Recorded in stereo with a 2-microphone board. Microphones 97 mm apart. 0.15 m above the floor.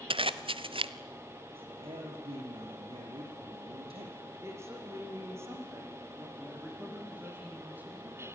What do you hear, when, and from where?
0.1 s a zipper: 65° right (ahead or behind), 0.9 m
1.5 s a man speaking: 75° right (ahead or behind), 5 m
4.4 s a woman speaking: 25° right (ahead or behind), 7 m
6.4 s a man speaking: 15° right (ahead or behind), 8 m